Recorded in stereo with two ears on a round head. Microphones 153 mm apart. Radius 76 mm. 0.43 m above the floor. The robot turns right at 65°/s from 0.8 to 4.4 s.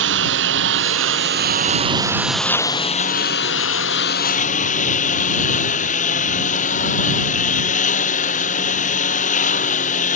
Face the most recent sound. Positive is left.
turn(degrees=135)